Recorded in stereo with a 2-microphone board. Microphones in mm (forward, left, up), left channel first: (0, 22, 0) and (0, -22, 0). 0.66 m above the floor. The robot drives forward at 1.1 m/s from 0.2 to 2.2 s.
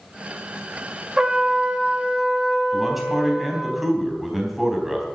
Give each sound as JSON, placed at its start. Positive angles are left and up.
{"t": 1.2, "sound": "a trumpet", "side_deg": -20, "distance_m": 1.1}
{"t": 2.7, "sound": "a man speaking", "side_deg": -5, "distance_m": 3.5}